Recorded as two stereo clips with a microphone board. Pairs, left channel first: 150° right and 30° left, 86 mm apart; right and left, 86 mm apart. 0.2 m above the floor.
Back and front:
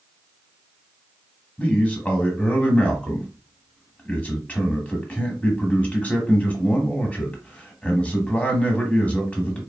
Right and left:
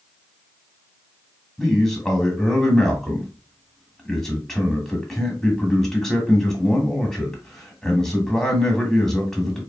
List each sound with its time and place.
1.6 s a man speaking: 165° right, 1.6 m